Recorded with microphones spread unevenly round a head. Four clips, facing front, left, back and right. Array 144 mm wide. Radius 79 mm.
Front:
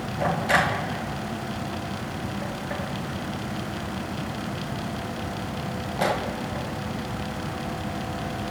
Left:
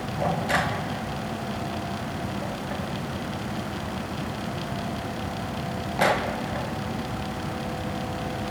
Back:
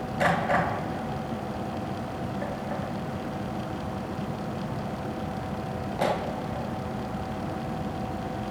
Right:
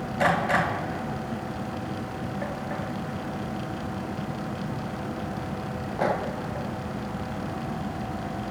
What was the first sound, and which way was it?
Only background noise.